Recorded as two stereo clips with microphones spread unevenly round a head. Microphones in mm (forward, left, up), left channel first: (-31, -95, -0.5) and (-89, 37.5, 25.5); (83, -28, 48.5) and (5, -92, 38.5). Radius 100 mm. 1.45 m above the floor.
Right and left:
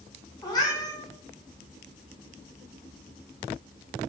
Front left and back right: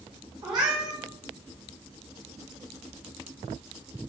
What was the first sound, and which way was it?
A cat meowing, 125° right.